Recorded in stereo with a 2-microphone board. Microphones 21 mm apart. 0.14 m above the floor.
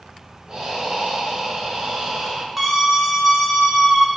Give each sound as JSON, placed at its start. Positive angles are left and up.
{"t": 0.5, "sound": "breathing", "side_deg": -40, "distance_m": 0.9}
{"t": 2.6, "sound": "a scream", "side_deg": -20, "distance_m": 1.2}